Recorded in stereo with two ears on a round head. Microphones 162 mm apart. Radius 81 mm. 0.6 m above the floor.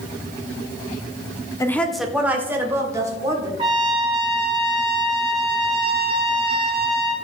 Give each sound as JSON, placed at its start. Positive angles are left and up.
{"t": 1.6, "sound": "a woman speaking", "side_deg": 15, "distance_m": 0.9}
{"t": 3.6, "sound": "a trumpet", "side_deg": -30, "distance_m": 4.5}